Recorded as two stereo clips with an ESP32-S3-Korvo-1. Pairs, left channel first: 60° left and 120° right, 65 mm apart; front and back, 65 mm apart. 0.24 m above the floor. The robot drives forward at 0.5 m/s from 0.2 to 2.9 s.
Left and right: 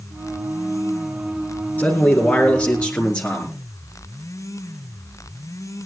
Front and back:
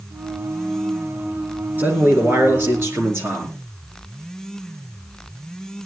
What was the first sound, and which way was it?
A man speaking, 125° left.